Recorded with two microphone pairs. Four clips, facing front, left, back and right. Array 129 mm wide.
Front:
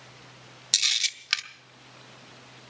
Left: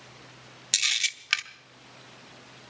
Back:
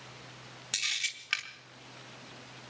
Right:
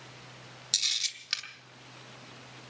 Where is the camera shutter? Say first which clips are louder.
Left 11 dB, front 4 dB; 50° left, 0.9 m.